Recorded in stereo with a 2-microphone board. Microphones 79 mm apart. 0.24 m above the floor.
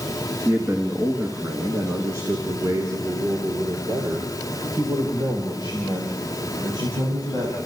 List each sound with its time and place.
0.5 s a man speaking: 15° right (ahead or behind), 3 m; by 7.5 s 60° right (ahead or behind), 6.5 m